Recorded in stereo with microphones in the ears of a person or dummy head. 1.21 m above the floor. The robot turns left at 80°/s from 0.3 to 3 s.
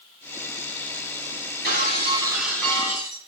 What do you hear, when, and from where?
1.6 s breaking glass: 110° right, 3.5 m; by 3.3 s 140° left, 3.5 m